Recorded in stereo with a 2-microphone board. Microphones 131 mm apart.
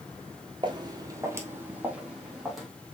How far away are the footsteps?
About 1.0 m.